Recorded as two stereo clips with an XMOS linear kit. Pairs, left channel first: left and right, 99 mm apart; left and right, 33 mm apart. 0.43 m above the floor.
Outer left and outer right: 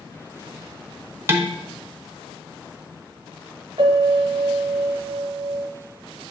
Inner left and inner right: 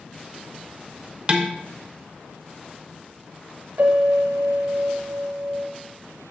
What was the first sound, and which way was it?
Dishes clattering, 25° right (ahead or behind).